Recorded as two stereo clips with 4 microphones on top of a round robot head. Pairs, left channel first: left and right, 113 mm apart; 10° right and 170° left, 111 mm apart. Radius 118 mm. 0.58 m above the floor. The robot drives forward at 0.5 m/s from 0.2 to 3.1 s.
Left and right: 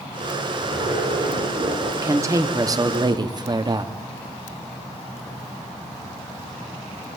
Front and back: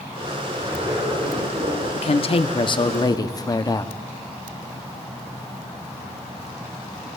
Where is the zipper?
130° right, 10 m; by 1.9 s 135° right, 10.5 m.